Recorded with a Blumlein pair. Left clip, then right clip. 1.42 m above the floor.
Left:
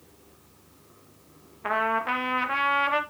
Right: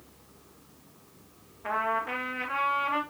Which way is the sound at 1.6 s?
30° left.